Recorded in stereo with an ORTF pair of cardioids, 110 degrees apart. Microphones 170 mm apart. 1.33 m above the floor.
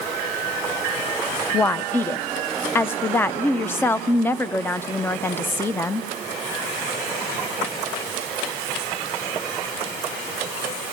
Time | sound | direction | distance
1.5 | a woman speaking | 10° left | 0.6 m